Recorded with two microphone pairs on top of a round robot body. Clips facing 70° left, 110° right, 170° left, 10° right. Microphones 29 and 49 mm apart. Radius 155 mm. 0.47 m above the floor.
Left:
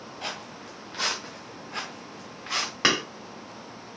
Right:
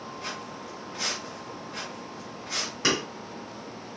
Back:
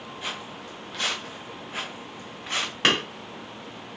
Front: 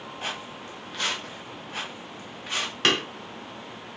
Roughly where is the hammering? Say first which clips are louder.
Left 3 dB, back 1 dB; left.